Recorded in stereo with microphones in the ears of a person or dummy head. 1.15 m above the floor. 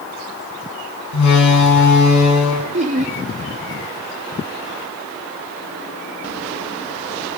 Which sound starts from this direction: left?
A door slam, at 1.1 s.